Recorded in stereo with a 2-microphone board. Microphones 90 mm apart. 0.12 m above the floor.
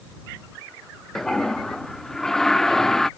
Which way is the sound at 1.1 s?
5° left (ahead or behind).